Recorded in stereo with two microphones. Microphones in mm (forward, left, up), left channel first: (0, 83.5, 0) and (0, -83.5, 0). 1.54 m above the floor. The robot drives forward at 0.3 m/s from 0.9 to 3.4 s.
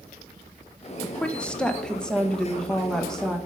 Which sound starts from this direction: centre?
A woman speaking, at 1.0 s.